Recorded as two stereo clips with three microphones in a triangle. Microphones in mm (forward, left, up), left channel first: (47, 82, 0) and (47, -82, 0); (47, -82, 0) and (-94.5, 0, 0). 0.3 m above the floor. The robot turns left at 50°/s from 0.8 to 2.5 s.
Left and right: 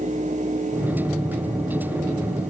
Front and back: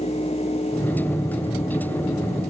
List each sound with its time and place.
Only background noise.